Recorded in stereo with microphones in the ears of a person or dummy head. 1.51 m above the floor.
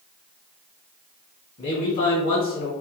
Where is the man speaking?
30° left (ahead or behind), 1.3 m.